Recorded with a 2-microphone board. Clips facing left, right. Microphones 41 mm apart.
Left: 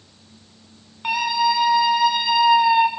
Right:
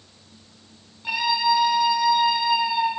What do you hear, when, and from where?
1.0 s a scream: 75° left (ahead or behind), 7.5 m; by 2.9 s 80° left, 5.5 m